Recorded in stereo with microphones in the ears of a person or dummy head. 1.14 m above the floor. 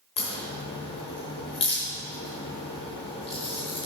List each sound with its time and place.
0.2 s a crack: 35° left (ahead or behind), 1.1 m